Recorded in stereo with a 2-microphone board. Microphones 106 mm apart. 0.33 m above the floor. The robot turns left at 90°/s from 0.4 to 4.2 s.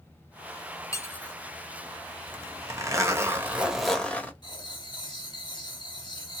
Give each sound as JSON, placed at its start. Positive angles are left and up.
{"t": 0.9, "sound": "cutlery clinking", "side_deg": 30, "distance_m": 0.7}
{"t": 2.3, "sound": "a zipper", "side_deg": -15, "distance_m": 1.3}
{"t": 4.4, "sound": "writing", "side_deg": 45, "distance_m": 1.9}